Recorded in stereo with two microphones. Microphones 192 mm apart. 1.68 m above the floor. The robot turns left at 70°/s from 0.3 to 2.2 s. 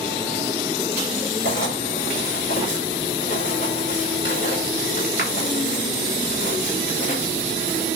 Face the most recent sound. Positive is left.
turn(degrees=60)  # may be behind; listen again after turning